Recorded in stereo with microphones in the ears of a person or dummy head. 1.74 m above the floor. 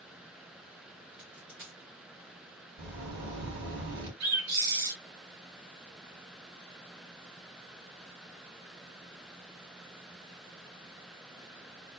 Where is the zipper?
45° right (ahead or behind), 2.5 m.